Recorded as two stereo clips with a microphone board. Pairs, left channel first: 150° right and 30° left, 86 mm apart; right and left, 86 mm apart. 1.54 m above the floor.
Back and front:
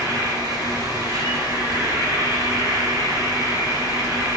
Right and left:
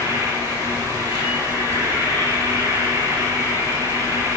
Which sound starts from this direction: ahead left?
An insect, at 0.0 s.